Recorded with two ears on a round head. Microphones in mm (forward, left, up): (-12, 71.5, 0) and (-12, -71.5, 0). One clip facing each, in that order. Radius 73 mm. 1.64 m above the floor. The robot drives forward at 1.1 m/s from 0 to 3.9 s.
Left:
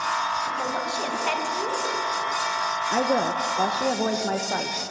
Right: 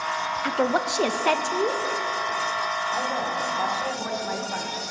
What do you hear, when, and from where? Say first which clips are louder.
0.4 s a woman speaking: right 5 dB; 75° right (ahead or behind), 1.4 m; by 1.8 s 40° right (ahead or behind), 2 m
2.9 s a woman speaking: left 8 dB; 70° left (ahead or behind), 1.2 m; by 4.8 s 50° left (ahead or behind), 1.5 m